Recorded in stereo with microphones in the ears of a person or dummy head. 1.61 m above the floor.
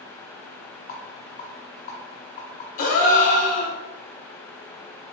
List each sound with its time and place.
0.9 s a rattle: 35° left (ahead or behind), 1.4 m
2.8 s a gasp: 55° left (ahead or behind), 0.9 m